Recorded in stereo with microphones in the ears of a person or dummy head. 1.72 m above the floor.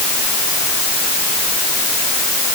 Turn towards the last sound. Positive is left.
No sound to turn to.